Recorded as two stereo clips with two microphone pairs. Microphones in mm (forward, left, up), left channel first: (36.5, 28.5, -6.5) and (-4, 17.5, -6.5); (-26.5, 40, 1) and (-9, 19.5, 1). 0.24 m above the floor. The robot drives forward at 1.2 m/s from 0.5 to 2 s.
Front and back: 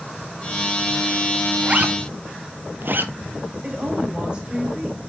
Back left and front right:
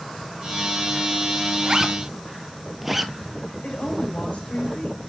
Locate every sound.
1.6 s a zipper: 95° right, 0.6 m; by 3.1 s 135° right, 0.8 m
3.6 s a woman speaking: 140° left, 4 m